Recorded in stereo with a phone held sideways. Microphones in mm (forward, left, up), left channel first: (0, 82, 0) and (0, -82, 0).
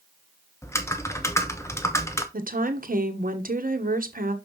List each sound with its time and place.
0.6 s typing on a keyboard: 20° left (ahead or behind), 0.9 m
2.3 s a woman speaking: 65° right (ahead or behind), 1.0 m